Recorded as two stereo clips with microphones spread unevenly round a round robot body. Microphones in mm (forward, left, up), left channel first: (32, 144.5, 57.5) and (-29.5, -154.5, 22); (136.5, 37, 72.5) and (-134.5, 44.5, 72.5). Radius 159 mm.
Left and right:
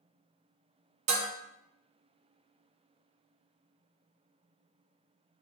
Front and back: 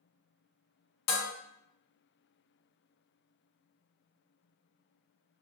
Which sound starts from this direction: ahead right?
Dishes clattering, at 1.1 s.